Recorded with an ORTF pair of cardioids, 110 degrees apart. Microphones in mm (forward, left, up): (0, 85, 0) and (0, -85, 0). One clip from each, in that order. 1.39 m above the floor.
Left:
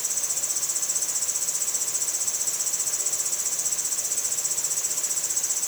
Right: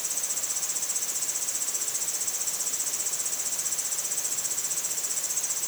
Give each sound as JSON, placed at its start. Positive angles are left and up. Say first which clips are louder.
{"t": 0.0, "sound": "an insect", "louder": "left 3 dB", "azimuth_deg": 25}